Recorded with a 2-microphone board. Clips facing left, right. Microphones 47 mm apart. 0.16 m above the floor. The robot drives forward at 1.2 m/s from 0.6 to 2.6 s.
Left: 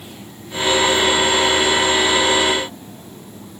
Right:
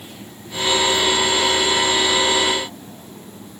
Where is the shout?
No shout in this recording.